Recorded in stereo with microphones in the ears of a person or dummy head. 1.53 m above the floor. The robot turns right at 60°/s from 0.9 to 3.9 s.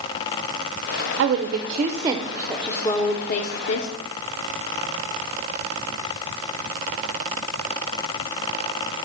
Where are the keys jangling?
I don't hear keys jangling.